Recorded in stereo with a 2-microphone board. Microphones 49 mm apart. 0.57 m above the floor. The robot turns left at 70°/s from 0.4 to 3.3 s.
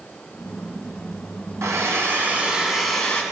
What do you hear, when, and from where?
1.6 s a hair dryer: 95° right, 2.5 m; by 3.2 s 155° left, 2.5 m